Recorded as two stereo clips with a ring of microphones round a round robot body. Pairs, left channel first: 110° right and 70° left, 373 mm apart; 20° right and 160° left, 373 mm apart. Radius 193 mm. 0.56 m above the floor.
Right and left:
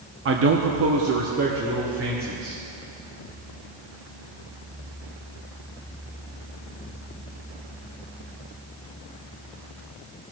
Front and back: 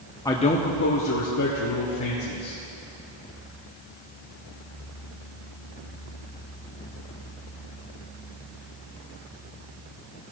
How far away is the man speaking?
About 0.7 m.